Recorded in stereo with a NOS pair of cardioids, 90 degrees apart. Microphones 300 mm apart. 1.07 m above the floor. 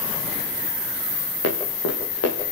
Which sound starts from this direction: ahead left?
Running footsteps, at 1.4 s.